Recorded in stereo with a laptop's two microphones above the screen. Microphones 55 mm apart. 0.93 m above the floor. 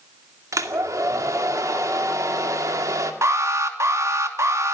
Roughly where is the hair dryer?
Right.